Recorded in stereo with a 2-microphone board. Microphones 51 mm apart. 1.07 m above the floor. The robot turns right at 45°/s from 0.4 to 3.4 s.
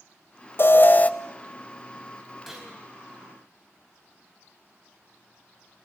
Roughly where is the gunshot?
Centre.